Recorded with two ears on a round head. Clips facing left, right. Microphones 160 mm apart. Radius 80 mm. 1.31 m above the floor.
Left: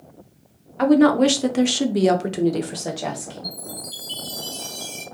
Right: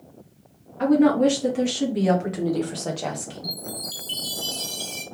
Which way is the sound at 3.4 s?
35° right (ahead or behind).